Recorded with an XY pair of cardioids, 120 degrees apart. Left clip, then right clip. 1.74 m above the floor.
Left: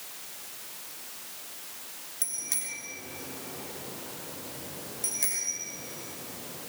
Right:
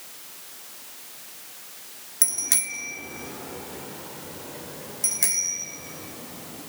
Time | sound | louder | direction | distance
2.2 | a bicycle bell | right 9 dB | 55° right | 3.5 m